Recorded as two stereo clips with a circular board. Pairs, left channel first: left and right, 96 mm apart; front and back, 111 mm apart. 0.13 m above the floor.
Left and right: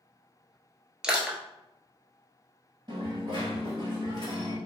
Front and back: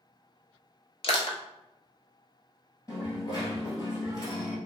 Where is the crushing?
10° right, 0.6 m.